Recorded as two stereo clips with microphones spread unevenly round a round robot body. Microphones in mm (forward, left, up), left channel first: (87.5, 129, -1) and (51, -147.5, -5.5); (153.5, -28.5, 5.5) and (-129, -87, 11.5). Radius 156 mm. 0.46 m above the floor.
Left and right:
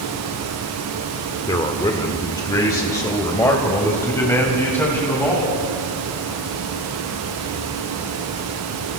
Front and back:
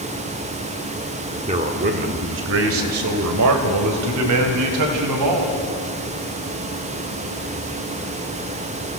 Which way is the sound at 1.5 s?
145° left.